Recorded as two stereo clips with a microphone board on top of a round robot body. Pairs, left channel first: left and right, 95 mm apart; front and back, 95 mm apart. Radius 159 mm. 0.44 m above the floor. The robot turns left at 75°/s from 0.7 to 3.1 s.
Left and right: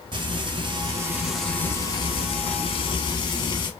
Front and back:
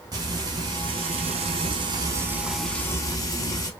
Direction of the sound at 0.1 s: 130° right.